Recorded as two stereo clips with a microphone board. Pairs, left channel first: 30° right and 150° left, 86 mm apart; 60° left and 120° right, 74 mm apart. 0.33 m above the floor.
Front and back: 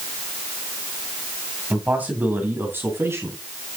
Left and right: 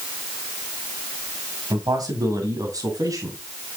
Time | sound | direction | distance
1.7 | a man speaking | 140° right | 2.5 m